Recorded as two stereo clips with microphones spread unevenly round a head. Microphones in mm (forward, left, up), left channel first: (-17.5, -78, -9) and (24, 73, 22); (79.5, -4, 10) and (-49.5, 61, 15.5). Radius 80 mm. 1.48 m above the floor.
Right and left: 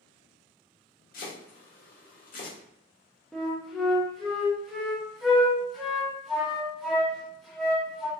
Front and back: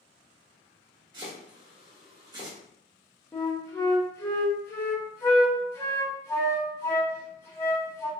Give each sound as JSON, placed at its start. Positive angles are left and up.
{"t": 1.1, "sound": "chopping", "azimuth_deg": -145, "distance_m": 1.2}
{"t": 3.3, "sound": "a flute", "azimuth_deg": 20, "distance_m": 0.8}